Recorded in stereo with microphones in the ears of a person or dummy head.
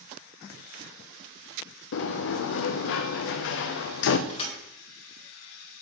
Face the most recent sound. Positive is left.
turn(degrees=25)  # may be behind; listen again after turning